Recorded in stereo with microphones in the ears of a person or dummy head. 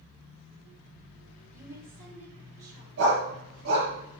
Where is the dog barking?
80° right, 6.5 m.